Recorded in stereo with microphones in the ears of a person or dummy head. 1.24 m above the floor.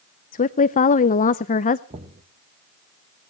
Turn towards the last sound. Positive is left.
turn(degrees=-30)  # may be behind; listen again after turning